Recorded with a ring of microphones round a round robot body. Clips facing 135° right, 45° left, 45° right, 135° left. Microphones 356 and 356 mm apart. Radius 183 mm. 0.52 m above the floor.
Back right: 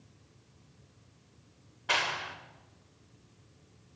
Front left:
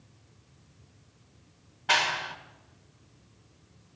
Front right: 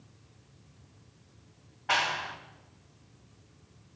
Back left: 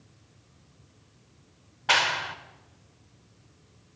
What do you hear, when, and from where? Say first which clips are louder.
1.9 s a clap: front left 3 dB, back left 3 dB; 125° left, 2.5 m